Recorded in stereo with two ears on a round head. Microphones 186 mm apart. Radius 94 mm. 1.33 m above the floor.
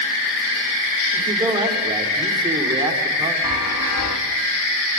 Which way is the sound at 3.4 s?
85° left.